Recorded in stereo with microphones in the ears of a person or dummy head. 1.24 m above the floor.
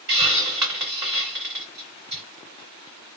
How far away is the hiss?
About 1.9 m.